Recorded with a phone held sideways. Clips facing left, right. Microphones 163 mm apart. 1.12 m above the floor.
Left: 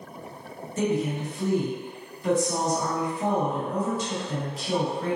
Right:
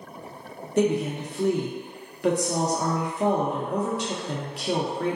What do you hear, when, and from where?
0.8 s a woman speaking: 70° right (ahead or behind), 0.7 m